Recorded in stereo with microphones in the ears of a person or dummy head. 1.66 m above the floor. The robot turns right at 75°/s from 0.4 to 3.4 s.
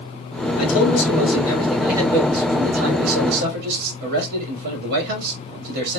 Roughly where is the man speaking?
Left.